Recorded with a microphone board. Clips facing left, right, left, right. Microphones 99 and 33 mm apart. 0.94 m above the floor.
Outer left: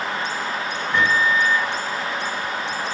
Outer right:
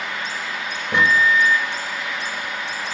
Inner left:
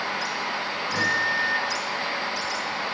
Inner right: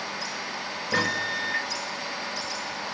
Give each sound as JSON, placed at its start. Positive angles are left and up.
{"t": 0.9, "sound": "a microwave", "side_deg": -70, "distance_m": 0.6}